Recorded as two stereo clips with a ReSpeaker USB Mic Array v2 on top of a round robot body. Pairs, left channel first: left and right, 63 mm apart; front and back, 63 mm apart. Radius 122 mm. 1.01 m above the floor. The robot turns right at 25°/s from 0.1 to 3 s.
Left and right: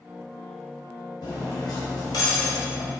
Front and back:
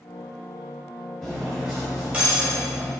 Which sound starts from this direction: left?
Cutlery clinking, at 1.2 s.